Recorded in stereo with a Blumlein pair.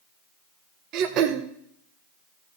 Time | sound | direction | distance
0.9 | throat clearing | 40° right | 1.0 m